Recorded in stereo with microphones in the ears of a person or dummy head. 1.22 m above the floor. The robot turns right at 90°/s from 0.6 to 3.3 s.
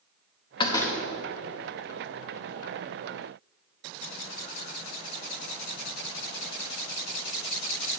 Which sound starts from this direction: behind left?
A door slam, at 0.6 s.